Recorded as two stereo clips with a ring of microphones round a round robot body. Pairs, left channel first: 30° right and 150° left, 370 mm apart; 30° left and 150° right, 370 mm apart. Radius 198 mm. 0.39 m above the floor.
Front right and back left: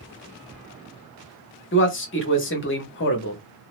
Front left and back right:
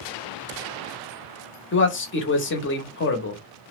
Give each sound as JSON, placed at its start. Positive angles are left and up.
{"t": 1.7, "sound": "a man speaking", "azimuth_deg": 0, "distance_m": 0.9}